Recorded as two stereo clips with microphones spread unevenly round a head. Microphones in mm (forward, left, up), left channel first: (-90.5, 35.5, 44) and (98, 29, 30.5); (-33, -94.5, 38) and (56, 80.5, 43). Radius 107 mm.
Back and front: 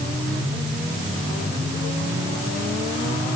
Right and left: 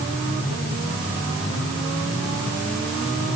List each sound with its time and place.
Only background noise.